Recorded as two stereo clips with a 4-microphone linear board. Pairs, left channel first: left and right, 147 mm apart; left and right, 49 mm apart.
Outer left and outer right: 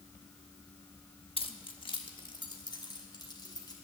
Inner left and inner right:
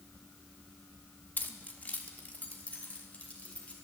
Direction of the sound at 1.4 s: 40° left (ahead or behind).